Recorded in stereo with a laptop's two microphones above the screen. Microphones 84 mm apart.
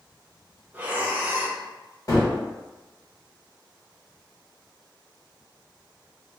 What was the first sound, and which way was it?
Breathing, 20° right (ahead or behind).